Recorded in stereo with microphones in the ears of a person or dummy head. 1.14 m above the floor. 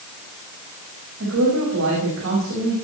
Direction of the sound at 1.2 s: 75° right (ahead or behind).